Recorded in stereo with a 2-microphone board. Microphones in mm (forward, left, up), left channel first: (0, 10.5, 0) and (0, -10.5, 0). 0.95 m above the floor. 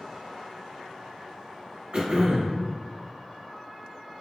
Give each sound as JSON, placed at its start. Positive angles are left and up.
{"t": 1.9, "sound": "throat clearing", "side_deg": -45, "distance_m": 0.9}